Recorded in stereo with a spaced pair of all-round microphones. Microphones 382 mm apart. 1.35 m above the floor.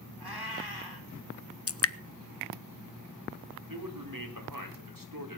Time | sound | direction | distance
0.2 | a cat meowing | 75° right (ahead or behind) | 5.5 m
1.7 | dripping | 40° left (ahead or behind) | 0.5 m
3.7 | a man speaking | 60° right (ahead or behind) | 4 m